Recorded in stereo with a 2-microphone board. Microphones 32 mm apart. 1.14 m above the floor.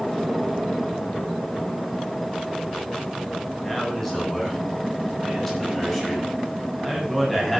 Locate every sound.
3.6 s a man speaking: 10° left (ahead or behind), 10 m; by 7.6 s 5° left (ahead or behind), 8 m